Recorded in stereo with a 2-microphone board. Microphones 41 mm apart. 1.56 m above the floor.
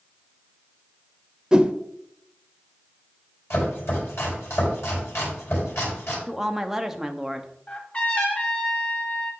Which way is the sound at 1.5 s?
15° right (ahead or behind).